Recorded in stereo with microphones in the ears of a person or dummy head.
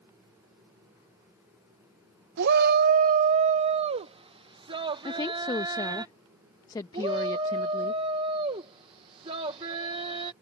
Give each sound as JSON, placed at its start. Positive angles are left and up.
{"t": 2.4, "sound": "a shout", "side_deg": -60}
{"t": 5.0, "sound": "a woman speaking", "side_deg": 15}
{"t": 6.9, "sound": "a shout", "side_deg": -35}